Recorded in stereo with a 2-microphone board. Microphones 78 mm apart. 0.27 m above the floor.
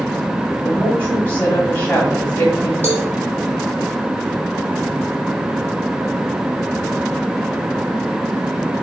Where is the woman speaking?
25° left (ahead or behind), 1.6 m.